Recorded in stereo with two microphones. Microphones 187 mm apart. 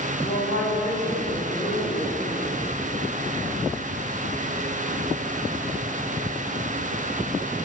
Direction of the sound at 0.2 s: 75° left (ahead or behind).